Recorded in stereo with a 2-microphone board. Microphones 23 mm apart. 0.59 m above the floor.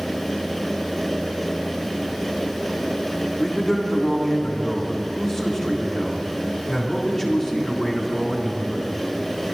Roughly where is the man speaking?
Centre.